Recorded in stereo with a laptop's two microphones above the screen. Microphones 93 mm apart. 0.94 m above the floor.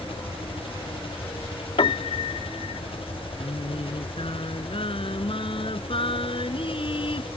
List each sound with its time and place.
0.0 s an engine running: 75° left (ahead or behind)
1.8 s a piano: 70° left (ahead or behind)
3.4 s singing: 70° left (ahead or behind)